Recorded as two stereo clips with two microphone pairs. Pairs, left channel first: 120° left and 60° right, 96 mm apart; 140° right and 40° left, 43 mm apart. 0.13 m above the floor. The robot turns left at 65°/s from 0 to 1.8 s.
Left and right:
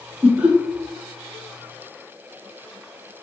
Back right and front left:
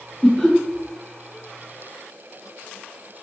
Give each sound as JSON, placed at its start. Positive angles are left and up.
{"t": 0.2, "sound": "laughter", "azimuth_deg": -75, "distance_m": 1.0}